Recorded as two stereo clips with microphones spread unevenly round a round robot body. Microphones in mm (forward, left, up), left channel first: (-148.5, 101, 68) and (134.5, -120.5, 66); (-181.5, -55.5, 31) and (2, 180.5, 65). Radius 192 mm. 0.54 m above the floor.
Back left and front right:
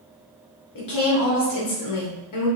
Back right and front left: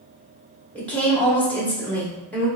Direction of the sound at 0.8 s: 155° left.